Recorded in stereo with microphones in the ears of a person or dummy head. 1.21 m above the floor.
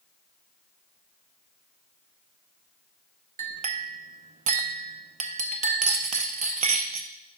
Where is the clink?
40° right (ahead or behind), 0.6 m.